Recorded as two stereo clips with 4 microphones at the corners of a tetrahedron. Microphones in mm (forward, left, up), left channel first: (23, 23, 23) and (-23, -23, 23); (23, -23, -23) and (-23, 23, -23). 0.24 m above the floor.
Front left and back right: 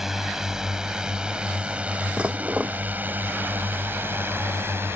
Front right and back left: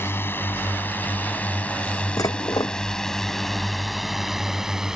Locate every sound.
0.0 s a drone: 55° right; by 5.0 s 150° right
2.2 s dishes clattering: 60° right